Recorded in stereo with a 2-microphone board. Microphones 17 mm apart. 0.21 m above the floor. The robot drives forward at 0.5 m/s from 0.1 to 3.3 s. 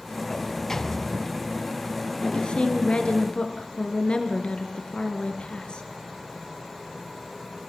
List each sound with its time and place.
0.3 s a sliding door: 20° left (ahead or behind), 0.8 m; by 2.1 s 10° left (ahead or behind), 1.5 m
2.2 s a woman speaking: 65° left (ahead or behind), 4 m